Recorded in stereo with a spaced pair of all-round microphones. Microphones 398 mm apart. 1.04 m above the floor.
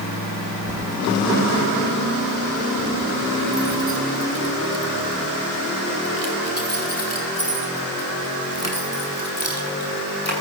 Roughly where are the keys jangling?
Centre.